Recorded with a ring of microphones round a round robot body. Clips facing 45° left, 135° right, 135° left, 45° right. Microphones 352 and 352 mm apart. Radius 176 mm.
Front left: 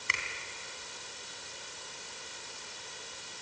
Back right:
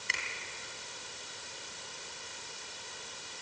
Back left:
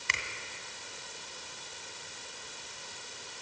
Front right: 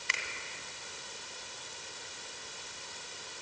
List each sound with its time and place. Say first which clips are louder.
0.1 s a finger snap: front left 2 dB, back left 2 dB; 125° left, 2.5 m